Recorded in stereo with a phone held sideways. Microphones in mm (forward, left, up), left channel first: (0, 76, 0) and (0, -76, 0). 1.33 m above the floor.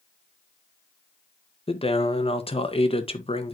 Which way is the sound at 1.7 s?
40° left (ahead or behind).